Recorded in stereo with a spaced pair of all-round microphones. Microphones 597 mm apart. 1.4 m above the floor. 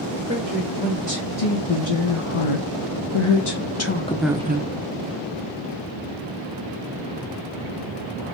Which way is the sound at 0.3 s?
85° left.